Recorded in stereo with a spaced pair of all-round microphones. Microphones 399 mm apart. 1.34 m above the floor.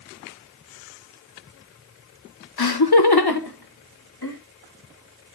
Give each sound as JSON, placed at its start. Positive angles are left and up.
{"t": 2.6, "sound": "laughter", "side_deg": 65, "distance_m": 0.6}